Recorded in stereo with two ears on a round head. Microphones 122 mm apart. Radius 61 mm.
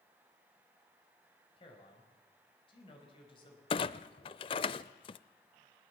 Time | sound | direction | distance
1.6 | a man speaking | 40° left (ahead or behind) | 4.5 m
3.7 | a clunk | 40° left (ahead or behind) | 0.5 m